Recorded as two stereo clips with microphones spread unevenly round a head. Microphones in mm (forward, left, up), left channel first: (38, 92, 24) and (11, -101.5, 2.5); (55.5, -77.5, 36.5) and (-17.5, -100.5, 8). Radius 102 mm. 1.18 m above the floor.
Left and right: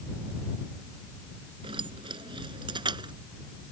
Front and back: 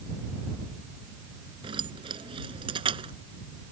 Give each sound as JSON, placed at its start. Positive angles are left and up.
{"t": 1.6, "sound": "keys jangling", "azimuth_deg": -165}